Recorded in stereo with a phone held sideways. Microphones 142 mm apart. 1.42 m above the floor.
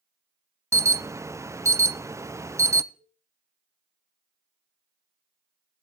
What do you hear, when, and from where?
0.7 s an alarm: 20° right (ahead or behind), 0.5 m
2.9 s a cowbell: 60° left (ahead or behind), 7 m